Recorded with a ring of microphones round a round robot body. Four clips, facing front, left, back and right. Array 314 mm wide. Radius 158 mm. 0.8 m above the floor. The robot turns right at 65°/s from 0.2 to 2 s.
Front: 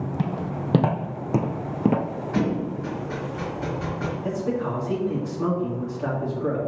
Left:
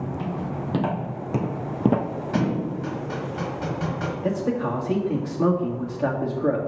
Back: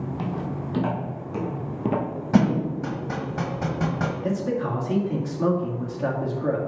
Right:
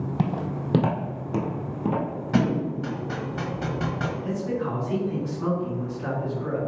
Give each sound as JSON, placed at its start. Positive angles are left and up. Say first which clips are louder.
{"t": 0.2, "sound": "footsteps", "louder": "right 1 dB, front 2 dB", "azimuth_deg": -65, "distance_m": 1.8}
{"t": 2.3, "sound": "a thud", "louder": "right 2 dB, back 5 dB", "azimuth_deg": -165, "distance_m": 1.3}
{"t": 4.2, "sound": "a man speaking", "louder": "left 6 dB, front 1 dB", "azimuth_deg": 95, "distance_m": 1.9}